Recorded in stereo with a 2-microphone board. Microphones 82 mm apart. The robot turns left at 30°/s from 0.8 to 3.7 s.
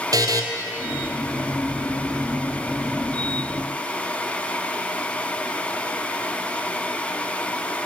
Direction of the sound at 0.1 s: 50° right (ahead or behind).